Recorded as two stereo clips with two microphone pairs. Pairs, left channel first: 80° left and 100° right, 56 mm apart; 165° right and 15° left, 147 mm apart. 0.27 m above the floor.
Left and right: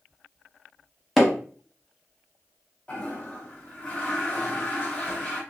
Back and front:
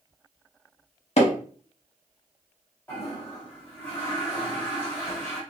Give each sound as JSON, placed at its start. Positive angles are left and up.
{"t": 1.2, "sound": "hammering", "azimuth_deg": 170, "distance_m": 0.8}
{"t": 2.9, "sound": "a toilet flushing", "azimuth_deg": 125, "distance_m": 1.5}